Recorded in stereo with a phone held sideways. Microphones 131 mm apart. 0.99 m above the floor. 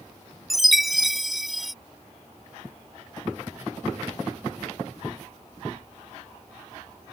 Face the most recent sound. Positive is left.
turn(degrees=0)  # may be behind; listen again after turning